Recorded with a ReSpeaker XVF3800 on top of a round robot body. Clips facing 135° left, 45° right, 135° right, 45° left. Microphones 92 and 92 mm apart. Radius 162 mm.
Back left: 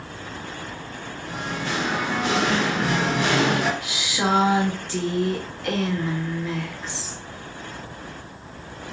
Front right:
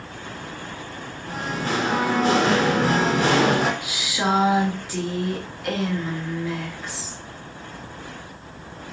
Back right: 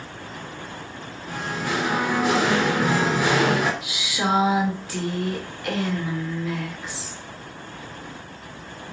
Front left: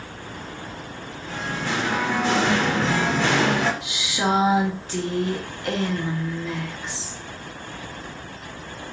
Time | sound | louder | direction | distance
1.3 | singing | front right 3 dB, even | 60° right | 0.9 m
3.8 | a woman speaking | even, front left 1 dB | 30° left | 1.3 m